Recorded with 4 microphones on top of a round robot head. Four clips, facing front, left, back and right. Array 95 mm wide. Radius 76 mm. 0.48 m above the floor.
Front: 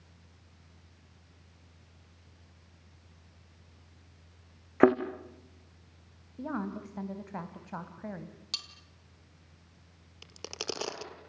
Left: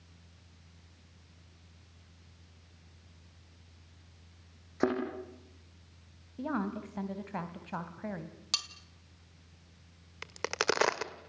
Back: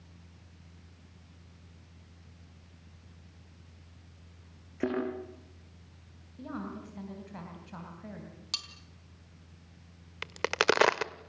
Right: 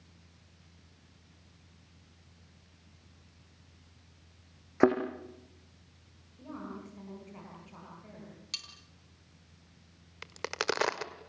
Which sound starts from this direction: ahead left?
A woman speaking, at 6.4 s.